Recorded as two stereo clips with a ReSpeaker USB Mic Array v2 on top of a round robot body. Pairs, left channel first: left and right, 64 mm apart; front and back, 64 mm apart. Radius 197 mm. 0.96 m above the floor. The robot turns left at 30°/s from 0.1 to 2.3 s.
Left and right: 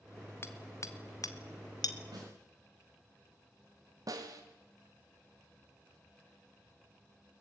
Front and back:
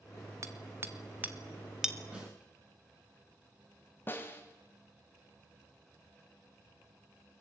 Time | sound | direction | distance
0.4 | hammering | 140° left | 1.7 m
2.1 | a snare drum | 110° right | 8.5 m
4.1 | a snare drum | 60° right | 1.7 m